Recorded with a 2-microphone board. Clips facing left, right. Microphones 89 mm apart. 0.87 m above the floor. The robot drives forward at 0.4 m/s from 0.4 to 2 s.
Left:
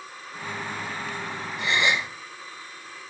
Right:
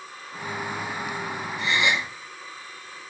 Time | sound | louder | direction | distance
1.6 | a gasp | even | 55° left (ahead or behind) | 0.9 m